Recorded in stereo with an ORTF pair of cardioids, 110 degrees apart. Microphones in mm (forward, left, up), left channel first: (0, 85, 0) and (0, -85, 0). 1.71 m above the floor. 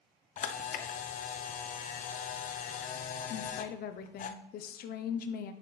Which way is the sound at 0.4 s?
50° left.